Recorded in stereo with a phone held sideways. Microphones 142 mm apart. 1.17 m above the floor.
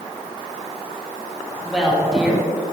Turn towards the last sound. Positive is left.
turn(degrees=-5)  # may be behind; listen again after turning